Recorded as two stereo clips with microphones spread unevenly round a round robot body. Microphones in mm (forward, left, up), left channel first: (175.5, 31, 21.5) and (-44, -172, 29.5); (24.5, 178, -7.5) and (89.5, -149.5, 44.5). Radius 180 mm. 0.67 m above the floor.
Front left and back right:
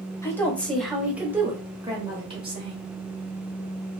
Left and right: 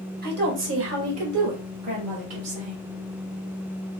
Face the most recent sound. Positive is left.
turn(degrees=-70)